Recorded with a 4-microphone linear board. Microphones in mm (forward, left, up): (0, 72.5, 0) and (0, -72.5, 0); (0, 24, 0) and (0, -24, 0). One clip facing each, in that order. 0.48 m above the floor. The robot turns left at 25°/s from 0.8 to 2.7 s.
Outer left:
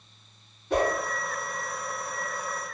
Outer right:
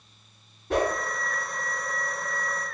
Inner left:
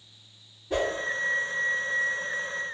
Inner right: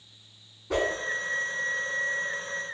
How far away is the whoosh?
About 1.0 m.